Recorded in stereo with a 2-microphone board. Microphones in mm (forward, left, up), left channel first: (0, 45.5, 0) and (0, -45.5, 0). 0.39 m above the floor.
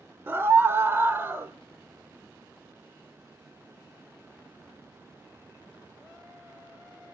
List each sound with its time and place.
0.3 s a scream: 25° right (ahead or behind), 0.9 m